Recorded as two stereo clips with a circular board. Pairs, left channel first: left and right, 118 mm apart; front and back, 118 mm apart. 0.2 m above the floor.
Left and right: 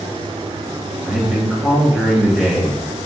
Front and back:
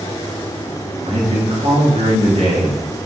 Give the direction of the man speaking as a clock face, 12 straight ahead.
6 o'clock.